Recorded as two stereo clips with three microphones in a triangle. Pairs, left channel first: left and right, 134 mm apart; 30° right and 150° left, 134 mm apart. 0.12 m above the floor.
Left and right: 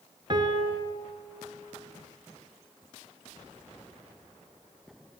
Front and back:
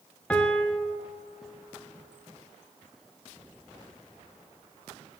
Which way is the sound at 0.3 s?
105° right.